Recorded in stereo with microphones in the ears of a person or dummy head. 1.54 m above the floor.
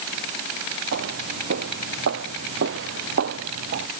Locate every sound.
0.9 s footsteps: 70° right (ahead or behind); by 3.9 s 65° right (ahead or behind)